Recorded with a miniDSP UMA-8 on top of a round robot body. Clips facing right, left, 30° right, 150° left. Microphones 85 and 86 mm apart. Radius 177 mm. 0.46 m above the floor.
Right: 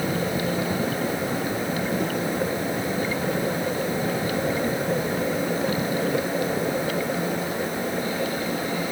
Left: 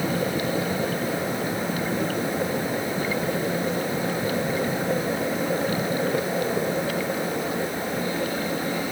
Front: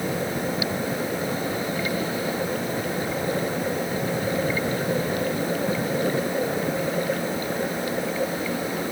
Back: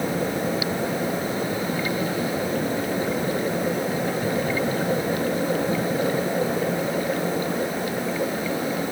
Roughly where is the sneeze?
I don't hear a sneeze.